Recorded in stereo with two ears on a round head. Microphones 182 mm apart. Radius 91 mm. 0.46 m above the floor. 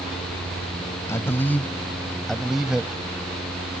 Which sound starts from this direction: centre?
A man speaking, at 1.1 s.